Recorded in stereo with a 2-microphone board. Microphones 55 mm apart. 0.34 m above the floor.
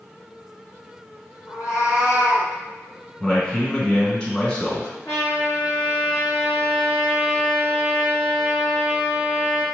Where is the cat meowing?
70° left (ahead or behind), 2.0 m.